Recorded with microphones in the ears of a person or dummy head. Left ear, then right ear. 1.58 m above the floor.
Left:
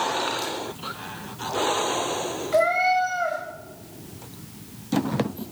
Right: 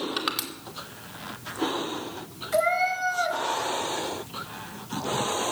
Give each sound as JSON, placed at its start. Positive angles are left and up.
{"t": 0.2, "sound": "crushing", "side_deg": -35, "distance_m": 2.5}
{"t": 2.5, "sound": "a cat meowing", "side_deg": 0, "distance_m": 3.5}